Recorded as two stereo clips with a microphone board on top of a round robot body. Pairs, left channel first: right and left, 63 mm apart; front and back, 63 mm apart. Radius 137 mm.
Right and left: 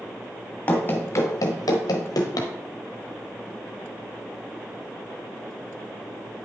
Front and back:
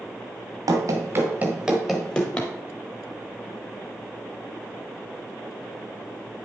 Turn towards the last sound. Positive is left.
turn(degrees=-70)